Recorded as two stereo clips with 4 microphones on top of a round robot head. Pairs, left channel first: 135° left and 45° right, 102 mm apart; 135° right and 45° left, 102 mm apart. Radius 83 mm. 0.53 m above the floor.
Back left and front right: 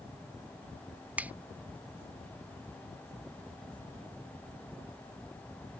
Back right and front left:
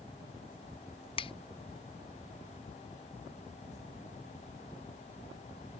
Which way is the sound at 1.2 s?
120° right.